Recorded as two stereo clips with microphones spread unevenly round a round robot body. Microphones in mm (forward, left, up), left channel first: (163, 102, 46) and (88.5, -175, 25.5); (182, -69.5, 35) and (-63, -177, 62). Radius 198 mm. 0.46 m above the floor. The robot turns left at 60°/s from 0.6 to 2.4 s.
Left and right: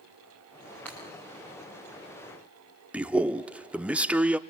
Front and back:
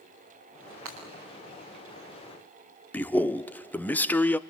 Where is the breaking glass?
160° left, 6.5 m; by 1.0 s 155° left, 6.5 m.